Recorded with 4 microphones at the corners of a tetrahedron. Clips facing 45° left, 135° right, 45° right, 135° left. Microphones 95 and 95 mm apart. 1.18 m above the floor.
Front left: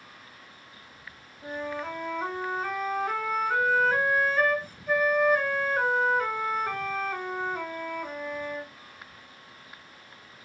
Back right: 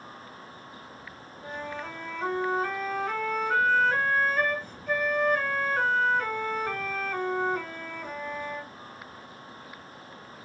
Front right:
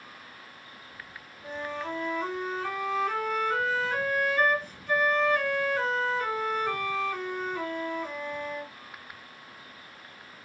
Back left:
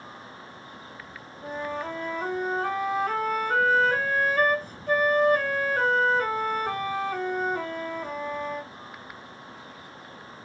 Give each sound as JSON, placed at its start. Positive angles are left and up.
{"t": 1.4, "sound": "a flute", "azimuth_deg": 120, "distance_m": 0.9}